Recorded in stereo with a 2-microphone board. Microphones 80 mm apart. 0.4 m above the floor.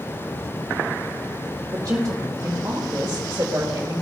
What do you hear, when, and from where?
1.7 s a woman speaking: 40° right (ahead or behind), 1.7 m